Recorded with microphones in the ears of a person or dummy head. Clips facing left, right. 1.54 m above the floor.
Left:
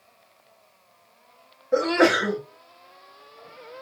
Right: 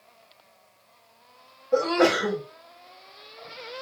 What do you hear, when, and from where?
1.7 s a sneeze: 15° left (ahead or behind), 0.9 m